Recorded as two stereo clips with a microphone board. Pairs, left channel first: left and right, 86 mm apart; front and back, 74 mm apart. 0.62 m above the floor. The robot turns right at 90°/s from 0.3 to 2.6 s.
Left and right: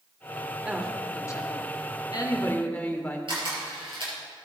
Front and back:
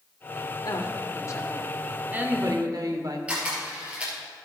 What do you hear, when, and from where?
0.6 s a woman speaking: 20° right, 1.4 m; by 3.2 s 160° left, 1.4 m
3.3 s a camera shutter: 105° right, 4 m